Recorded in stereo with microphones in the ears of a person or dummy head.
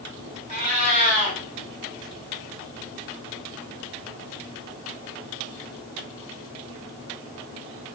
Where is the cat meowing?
35° right (ahead or behind), 2 m.